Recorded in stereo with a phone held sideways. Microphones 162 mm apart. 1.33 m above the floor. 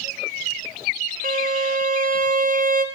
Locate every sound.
1.2 s a violin: 55° right (ahead or behind), 0.5 m